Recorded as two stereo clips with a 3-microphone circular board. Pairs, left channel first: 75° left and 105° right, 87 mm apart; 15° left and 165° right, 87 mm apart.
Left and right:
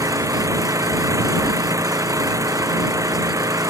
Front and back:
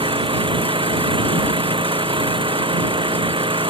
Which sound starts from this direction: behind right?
An engine running, at 0.0 s.